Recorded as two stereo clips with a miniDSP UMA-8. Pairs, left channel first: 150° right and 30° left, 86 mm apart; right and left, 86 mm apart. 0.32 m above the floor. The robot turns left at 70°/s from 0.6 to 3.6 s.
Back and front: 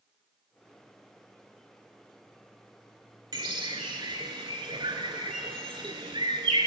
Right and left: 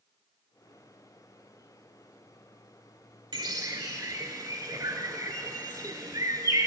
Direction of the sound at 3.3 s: 65° left.